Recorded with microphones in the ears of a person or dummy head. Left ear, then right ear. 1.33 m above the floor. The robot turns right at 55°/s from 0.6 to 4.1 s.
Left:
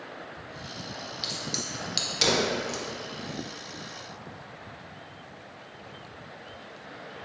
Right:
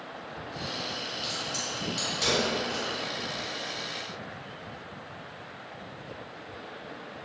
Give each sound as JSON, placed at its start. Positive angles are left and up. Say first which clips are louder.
{"t": 1.2, "sound": "a crack", "louder": "left 3 dB", "side_deg": 15, "distance_m": 0.7}